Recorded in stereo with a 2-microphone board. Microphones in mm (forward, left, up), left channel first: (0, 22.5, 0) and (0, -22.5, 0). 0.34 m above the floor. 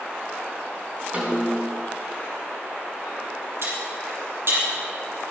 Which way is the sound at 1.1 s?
30° right (ahead or behind).